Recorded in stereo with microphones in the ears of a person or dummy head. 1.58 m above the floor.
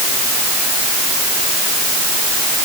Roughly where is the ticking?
No ticking in this recording.